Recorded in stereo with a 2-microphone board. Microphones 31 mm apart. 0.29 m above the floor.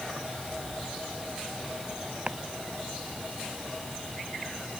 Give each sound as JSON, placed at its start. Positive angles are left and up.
{"t": 2.3, "sound": "chopping", "side_deg": -35}